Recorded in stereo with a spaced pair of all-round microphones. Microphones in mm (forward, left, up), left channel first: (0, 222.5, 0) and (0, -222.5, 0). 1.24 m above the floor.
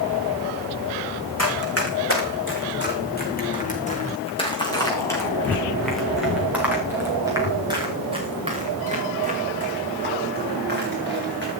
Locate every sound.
1.4 s running footsteps: 35° left (ahead or behind), 4.5 m; by 11.5 s 25° right (ahead or behind), 7 m